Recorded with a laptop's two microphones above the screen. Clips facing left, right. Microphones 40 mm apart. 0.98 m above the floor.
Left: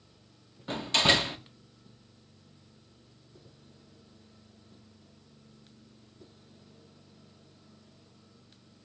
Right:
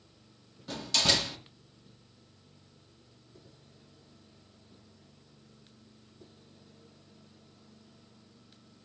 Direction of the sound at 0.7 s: 30° left (ahead or behind).